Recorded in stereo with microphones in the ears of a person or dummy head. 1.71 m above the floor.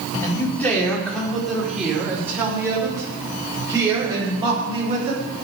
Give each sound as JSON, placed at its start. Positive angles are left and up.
{"t": 0.2, "sound": "a man speaking", "side_deg": 15, "distance_m": 4.5}